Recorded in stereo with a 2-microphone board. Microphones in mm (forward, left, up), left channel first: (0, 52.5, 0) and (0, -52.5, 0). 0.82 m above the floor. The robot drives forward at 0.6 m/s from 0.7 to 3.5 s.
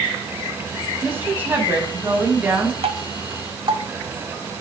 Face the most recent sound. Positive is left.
turn(degrees=-55)  # may be behind; listen again after turning